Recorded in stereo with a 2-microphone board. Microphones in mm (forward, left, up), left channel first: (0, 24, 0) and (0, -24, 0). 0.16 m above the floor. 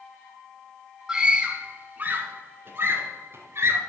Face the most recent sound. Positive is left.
turn(degrees=-60)  # may be behind; listen again after turning